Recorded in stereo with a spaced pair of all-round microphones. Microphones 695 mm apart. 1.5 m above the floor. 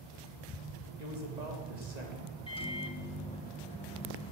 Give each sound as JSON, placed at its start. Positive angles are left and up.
{"t": 1.0, "sound": "a man speaking", "side_deg": -70, "distance_m": 2.5}
{"t": 2.5, "sound": "a microwave", "side_deg": 10, "distance_m": 1.1}